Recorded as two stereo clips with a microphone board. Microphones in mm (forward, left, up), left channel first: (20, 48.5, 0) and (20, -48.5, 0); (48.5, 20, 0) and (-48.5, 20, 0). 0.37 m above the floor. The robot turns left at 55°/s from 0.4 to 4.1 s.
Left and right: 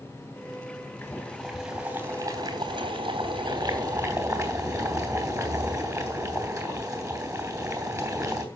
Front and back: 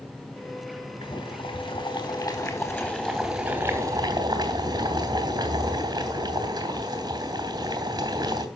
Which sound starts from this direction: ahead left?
Boiling, at 1.0 s.